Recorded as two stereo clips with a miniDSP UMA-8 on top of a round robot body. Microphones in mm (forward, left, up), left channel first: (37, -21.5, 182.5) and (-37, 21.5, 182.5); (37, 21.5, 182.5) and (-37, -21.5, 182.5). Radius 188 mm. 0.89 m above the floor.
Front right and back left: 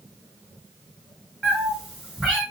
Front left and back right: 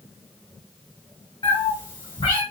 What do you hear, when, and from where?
1.4 s a cat meowing: 60° left, 1.8 m